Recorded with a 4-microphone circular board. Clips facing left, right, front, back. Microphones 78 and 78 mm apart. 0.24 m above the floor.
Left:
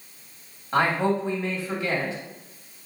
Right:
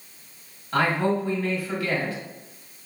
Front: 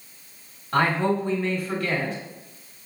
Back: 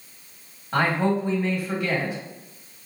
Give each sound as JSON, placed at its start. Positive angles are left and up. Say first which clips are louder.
{"t": 0.7, "sound": "a man speaking", "louder": "even, even", "azimuth_deg": 115, "distance_m": 1.1}